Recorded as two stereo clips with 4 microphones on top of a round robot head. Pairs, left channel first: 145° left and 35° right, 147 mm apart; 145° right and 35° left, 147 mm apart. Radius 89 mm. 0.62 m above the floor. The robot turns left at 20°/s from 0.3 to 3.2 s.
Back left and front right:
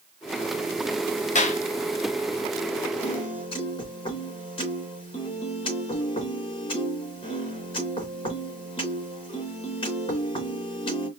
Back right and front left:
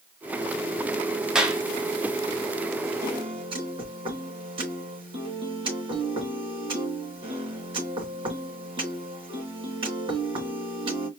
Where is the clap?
115° left, 1.7 m; by 1.6 s 110° left, 1.7 m.